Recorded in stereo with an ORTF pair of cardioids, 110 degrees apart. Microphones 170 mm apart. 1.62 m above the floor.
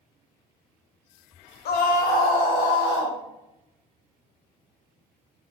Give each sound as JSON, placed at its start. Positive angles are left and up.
{"t": 1.6, "sound": "a scream", "azimuth_deg": 65, "distance_m": 0.7}